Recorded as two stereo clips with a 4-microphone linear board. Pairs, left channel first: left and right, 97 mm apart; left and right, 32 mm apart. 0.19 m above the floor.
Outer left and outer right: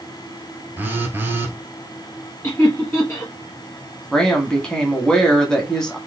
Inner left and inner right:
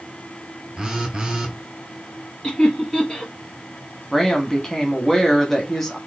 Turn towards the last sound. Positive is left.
turn(degrees=5)  # may be behind; listen again after turning